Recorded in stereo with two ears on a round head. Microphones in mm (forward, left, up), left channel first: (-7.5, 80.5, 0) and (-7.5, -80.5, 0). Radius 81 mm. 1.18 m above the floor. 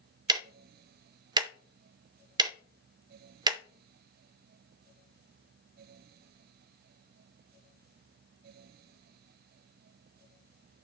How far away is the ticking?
About 0.5 m.